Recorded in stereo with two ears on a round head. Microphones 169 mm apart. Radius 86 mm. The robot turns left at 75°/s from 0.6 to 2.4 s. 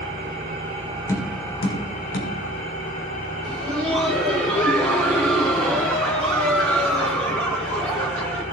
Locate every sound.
0.0 s an engine running: 125° right, 3.5 m; by 8.5 s 100° left, 3.5 m
1.1 s tapping: 15° left (ahead or behind), 3 m; by 2.3 s 65° left (ahead or behind), 3 m
3.4 s laughter: 5° left (ahead or behind), 2 m